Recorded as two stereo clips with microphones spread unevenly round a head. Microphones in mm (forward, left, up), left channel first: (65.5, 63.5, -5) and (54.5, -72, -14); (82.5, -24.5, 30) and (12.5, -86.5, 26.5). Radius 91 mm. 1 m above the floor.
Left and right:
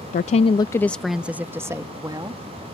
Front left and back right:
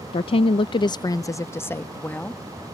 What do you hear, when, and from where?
0.1 s a woman speaking: 65° left; by 2.6 s 35° right